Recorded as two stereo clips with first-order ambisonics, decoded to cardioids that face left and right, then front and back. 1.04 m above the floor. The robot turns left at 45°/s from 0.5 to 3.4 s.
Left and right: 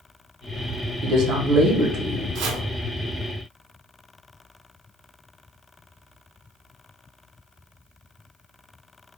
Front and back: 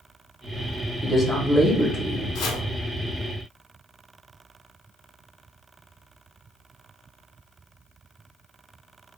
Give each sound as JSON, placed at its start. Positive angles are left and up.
{"t": 1.0, "sound": "a man speaking", "azimuth_deg": -85, "distance_m": 0.9}
{"t": 2.4, "sound": "chopping", "azimuth_deg": -45, "distance_m": 0.8}